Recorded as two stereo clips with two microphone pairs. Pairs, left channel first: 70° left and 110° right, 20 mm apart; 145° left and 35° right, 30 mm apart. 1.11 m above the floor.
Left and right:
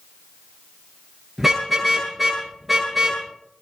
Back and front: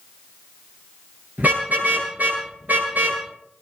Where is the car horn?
30° right, 9.5 m.